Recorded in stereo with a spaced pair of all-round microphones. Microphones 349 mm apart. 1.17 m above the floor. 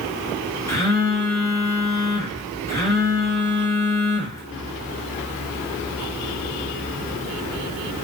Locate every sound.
0.7 s a phone buzzing: 10° left (ahead or behind), 0.8 m